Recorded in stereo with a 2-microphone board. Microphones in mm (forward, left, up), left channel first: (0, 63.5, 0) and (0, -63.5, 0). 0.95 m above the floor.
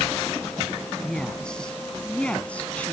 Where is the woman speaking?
5° left (ahead or behind); by 2.9 s 10° left (ahead or behind).